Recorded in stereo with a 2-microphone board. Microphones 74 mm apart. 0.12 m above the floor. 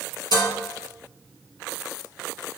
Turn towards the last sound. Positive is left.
turn(degrees=60)  # may be behind; listen again after turning